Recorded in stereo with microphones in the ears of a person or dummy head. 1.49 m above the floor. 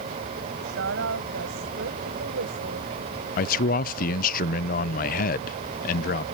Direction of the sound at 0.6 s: 85° right.